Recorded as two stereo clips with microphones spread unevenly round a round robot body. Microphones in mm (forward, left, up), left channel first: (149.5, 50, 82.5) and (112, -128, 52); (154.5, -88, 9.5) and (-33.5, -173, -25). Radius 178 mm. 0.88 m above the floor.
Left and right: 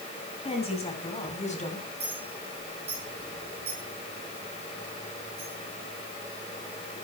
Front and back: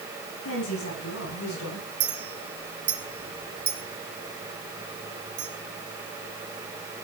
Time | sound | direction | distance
0.5 | a woman speaking | 20° left | 7.5 m
2.0 | a clink | 170° right | 4.5 m